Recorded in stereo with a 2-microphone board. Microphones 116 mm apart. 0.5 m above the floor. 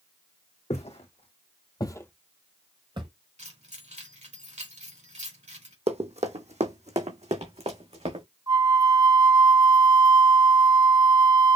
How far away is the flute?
About 1.3 m.